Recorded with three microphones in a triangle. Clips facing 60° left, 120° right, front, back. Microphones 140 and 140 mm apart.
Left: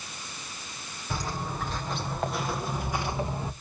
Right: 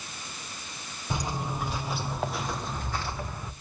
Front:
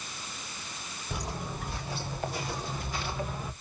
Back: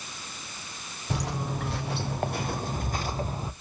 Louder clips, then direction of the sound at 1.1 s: Right 1 dB, back 6 dB; 170° left.